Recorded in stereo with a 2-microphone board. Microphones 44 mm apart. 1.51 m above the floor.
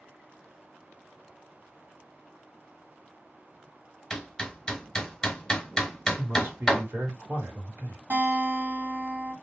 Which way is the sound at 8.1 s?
50° right (ahead or behind).